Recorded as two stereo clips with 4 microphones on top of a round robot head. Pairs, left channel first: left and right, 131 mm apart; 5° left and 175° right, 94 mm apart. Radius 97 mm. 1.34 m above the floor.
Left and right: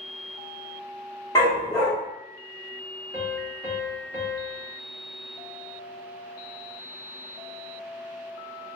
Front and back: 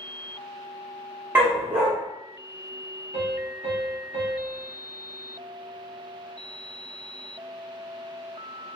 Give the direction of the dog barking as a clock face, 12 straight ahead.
7 o'clock.